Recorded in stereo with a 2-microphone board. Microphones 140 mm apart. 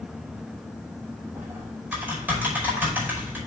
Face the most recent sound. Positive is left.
turn(degrees=-10)  # may be behind; listen again after turning